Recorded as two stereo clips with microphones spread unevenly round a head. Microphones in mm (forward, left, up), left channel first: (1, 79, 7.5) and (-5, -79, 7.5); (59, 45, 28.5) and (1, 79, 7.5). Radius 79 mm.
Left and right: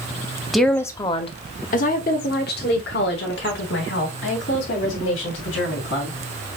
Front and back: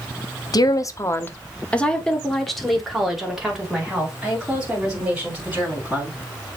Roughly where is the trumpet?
I don't hear a trumpet.